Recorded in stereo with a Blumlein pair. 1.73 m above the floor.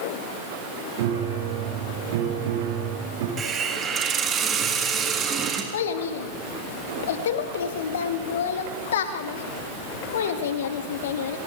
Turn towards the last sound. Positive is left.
turn(degrees=60)